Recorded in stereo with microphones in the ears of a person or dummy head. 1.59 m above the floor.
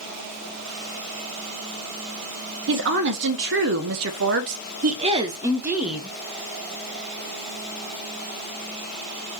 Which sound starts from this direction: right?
A woman speaking, at 2.7 s.